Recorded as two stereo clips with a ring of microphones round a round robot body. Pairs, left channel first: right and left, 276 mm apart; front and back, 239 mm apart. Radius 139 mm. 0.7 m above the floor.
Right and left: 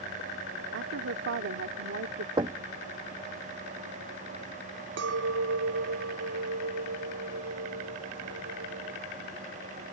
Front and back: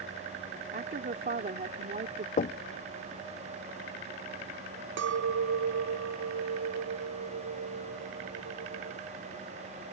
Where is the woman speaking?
130° left.